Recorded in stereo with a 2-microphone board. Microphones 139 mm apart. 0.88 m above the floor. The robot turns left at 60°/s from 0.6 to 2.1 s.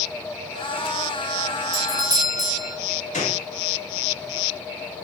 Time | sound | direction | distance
1.7 | a doorbell | 35° right (ahead or behind) | 0.8 m
3.1 | a gunshot | 60° left (ahead or behind) | 1.7 m